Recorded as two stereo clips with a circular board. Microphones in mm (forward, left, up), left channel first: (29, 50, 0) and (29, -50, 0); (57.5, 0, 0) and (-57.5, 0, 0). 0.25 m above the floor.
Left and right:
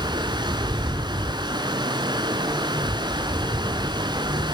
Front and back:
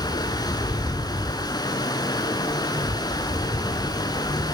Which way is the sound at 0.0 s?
50° right.